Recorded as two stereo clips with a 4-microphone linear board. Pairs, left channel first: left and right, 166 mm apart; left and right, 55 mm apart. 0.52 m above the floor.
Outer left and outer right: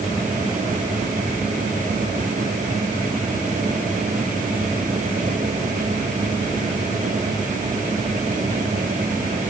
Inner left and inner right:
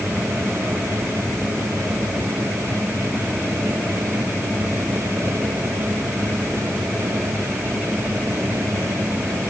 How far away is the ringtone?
No ringtone in this recording.